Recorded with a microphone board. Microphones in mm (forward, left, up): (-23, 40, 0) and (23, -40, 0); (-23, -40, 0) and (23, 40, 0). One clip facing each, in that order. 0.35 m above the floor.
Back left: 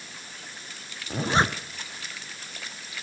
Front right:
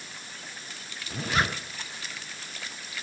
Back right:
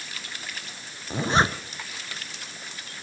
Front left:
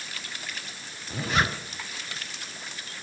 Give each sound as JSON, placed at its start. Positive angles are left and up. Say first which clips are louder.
{"t": 1.1, "sound": "a zipper", "louder": "back left 4 dB, back right 4 dB", "azimuth_deg": 180, "distance_m": 1.1}